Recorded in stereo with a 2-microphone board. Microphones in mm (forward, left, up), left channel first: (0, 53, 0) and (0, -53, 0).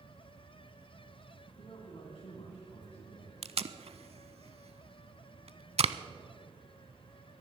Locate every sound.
1.5 s a man speaking: 65° left (ahead or behind), 2 m
3.4 s tape being pulled: 80° right, 0.5 m